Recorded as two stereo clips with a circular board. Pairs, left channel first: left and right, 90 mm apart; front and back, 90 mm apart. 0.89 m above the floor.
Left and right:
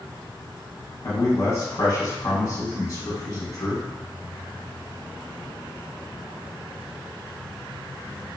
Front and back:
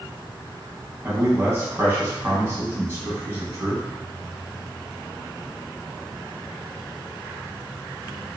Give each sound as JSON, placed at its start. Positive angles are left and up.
{"t": 1.0, "sound": "a man speaking", "azimuth_deg": 130, "distance_m": 0.8}